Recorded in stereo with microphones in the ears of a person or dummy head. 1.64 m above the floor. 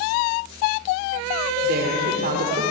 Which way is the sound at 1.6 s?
60° right (ahead or behind).